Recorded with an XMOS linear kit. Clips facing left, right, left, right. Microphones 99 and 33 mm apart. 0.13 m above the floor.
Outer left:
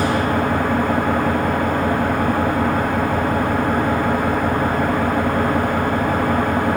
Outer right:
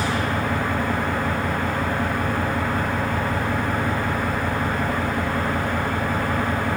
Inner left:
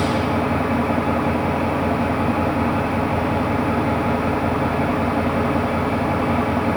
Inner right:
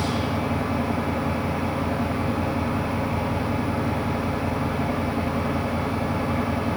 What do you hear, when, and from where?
0.0 s an engine running: 50° left (ahead or behind), 5.5 m